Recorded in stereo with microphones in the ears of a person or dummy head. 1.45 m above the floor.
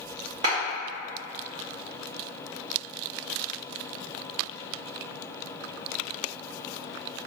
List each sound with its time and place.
0.4 s a clap: 40° right (ahead or behind), 1.6 m